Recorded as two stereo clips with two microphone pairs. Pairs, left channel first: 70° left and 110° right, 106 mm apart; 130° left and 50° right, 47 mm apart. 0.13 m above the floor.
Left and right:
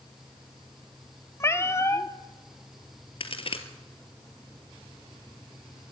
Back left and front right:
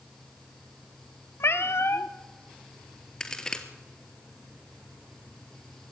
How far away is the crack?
About 1.7 m.